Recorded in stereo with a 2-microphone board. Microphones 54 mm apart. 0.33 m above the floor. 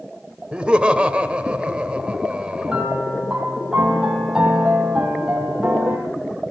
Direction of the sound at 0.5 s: 20° right (ahead or behind).